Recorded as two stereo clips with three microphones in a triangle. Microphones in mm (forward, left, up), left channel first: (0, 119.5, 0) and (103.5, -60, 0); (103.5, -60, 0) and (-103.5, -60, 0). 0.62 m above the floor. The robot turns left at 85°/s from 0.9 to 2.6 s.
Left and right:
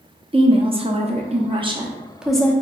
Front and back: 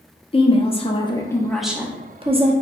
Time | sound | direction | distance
0.3 | a woman speaking | 30° right | 0.6 m